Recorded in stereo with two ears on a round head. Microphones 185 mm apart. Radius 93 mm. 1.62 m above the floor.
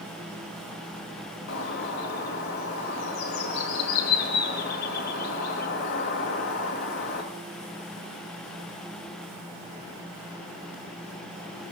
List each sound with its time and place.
1.5 s a bird: 50° left (ahead or behind), 3 m